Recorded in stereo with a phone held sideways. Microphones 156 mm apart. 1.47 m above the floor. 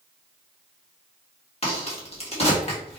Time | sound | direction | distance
1.6 | a crack | 40° left (ahead or behind) | 1.7 m